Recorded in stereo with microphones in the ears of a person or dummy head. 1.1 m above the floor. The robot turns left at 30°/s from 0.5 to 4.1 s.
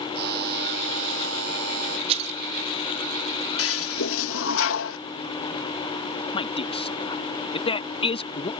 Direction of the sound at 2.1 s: 30° right (ahead or behind).